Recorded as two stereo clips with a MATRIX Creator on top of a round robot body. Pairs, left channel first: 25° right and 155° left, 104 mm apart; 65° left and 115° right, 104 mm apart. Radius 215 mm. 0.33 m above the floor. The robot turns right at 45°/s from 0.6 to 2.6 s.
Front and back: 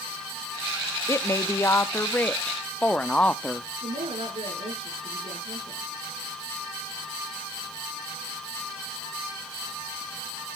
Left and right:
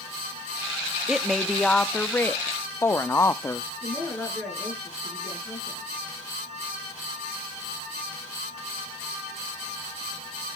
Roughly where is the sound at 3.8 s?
Behind left.